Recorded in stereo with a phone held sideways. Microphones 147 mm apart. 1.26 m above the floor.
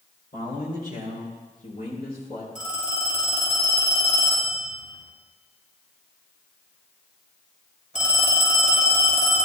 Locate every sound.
0.3 s a man speaking: 75° left (ahead or behind), 5.5 m; by 2.5 s 80° left, 4 m
2.5 s a phone ringing: 65° left (ahead or behind), 4.5 m